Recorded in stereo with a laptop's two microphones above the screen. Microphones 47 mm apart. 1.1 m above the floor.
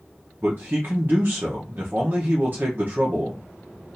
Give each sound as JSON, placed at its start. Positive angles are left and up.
{"t": 0.4, "sound": "a man speaking", "side_deg": -45, "distance_m": 1.0}